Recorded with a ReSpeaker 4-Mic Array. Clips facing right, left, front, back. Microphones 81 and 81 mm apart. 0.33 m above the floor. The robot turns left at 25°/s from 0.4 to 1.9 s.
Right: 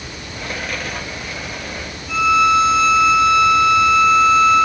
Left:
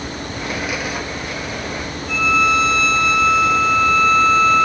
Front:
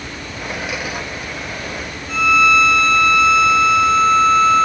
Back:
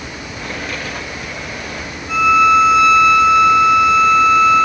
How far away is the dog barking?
I don't hear a dog barking.